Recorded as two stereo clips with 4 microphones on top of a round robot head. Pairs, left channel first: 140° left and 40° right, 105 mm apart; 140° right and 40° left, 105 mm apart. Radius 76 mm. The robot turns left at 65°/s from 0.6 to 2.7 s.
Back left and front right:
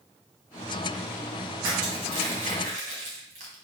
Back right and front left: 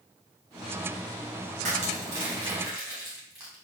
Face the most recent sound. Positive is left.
turn(degrees=-30)